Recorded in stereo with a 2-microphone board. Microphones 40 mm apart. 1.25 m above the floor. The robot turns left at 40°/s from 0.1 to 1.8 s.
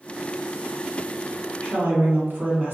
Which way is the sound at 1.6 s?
65° right (ahead or behind).